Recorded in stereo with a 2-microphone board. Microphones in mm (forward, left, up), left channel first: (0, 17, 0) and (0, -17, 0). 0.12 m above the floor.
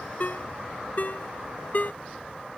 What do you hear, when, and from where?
0.2 s a ringtone: 50° left (ahead or behind)